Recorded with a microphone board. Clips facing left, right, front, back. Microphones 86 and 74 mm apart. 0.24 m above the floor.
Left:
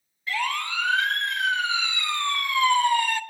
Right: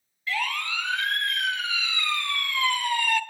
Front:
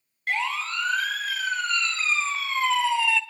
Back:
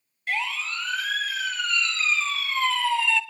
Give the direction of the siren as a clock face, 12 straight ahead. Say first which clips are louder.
Left 2 dB, front 2 dB; 11 o'clock.